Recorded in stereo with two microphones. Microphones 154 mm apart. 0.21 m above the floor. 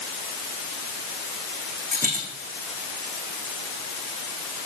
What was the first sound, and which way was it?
A dropped coin, 65° right (ahead or behind).